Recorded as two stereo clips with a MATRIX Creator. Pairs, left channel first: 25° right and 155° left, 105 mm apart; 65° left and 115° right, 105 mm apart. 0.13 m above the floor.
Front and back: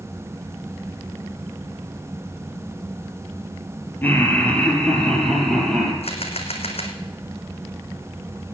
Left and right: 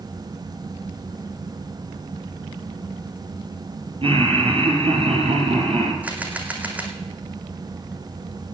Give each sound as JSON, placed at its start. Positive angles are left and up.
{"t": 4.0, "sound": "laughter", "azimuth_deg": -90, "distance_m": 3.5}
{"t": 6.0, "sound": "a camera shutter", "azimuth_deg": -35, "distance_m": 1.6}